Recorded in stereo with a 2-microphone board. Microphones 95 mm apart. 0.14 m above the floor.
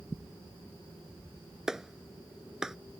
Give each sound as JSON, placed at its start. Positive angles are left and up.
{"t": 1.7, "sound": "a clap", "side_deg": -5}